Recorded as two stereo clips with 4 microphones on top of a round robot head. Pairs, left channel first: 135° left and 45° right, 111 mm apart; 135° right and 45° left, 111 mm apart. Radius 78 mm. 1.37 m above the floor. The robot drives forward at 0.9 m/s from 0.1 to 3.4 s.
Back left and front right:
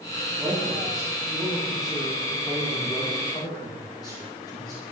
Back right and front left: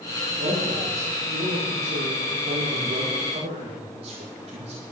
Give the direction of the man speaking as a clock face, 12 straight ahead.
11 o'clock.